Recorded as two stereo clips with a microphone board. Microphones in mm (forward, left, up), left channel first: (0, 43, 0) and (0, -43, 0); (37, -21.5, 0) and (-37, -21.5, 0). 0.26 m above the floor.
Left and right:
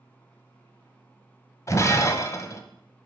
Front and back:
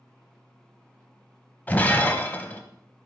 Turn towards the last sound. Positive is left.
turn(degrees=60)